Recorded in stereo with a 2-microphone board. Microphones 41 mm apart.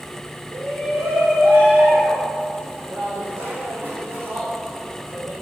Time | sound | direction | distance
0.5 | a shout | 65° right (ahead or behind) | 4.5 m